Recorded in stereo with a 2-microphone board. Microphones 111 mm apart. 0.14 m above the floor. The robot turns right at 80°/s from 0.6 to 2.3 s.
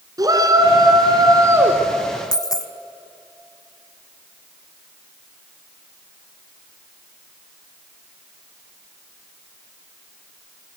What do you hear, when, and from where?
0.2 s a shout: 115° right, 1.7 m; by 1.8 s 20° right, 1.7 m
2.3 s a dropped coin: 35° left (ahead or behind), 0.9 m